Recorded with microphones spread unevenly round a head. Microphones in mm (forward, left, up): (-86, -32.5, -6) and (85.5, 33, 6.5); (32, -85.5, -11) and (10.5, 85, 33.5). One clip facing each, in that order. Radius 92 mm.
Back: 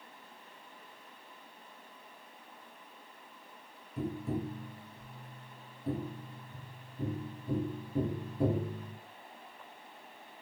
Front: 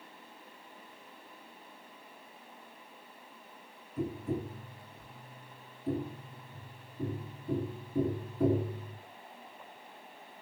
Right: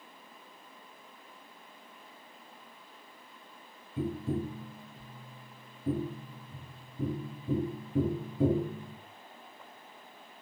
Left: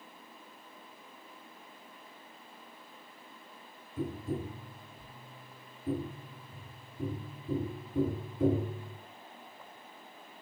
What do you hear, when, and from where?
4.0 s tapping: 100° right, 1.6 m